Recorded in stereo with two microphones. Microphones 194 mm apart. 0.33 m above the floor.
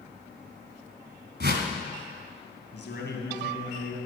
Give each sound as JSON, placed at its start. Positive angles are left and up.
{"t": 1.4, "sound": "a whoosh", "side_deg": -65, "distance_m": 1.2}
{"t": 2.7, "sound": "a man speaking", "side_deg": 65, "distance_m": 2.0}